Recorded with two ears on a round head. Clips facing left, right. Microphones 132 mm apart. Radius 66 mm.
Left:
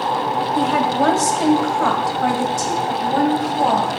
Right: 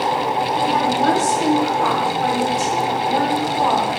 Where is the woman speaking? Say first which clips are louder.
Left 2 dB; 70° left (ahead or behind), 2.0 m; by 4.0 s 45° left (ahead or behind), 3 m.